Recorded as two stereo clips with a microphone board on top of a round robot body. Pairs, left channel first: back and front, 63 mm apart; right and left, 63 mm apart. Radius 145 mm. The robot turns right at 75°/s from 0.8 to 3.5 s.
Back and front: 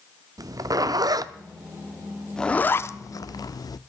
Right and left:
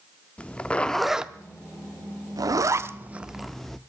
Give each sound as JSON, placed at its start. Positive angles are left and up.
{"t": 0.4, "sound": "a zipper", "azimuth_deg": -20, "distance_m": 0.7}